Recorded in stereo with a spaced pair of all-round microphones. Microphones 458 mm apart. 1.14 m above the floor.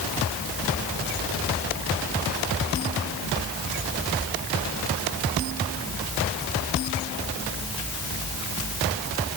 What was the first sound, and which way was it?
Only background noise.